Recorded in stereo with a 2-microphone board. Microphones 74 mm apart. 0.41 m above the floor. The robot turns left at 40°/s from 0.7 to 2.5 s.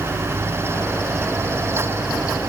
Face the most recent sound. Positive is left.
No sound to turn to.